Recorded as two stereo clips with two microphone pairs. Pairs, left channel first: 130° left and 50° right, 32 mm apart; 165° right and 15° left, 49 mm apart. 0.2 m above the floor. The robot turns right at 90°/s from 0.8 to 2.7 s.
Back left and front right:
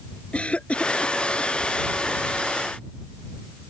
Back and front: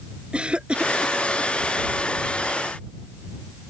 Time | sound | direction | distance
0.3 | a cough | 80° left | ?